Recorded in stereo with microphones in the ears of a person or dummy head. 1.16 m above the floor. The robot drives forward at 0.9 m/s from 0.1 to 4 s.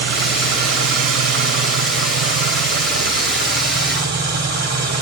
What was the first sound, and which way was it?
An engine running, 70° right (ahead or behind).